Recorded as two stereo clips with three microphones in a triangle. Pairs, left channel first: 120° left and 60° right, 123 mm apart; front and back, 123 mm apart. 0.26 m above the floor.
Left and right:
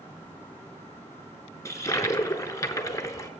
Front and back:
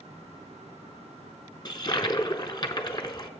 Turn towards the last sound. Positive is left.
turn(degrees=55)